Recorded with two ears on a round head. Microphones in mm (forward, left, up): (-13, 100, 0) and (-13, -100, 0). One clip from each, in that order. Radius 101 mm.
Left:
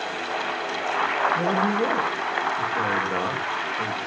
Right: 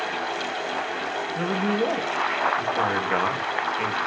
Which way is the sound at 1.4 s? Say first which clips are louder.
Left 2 dB; 25° right (ahead or behind).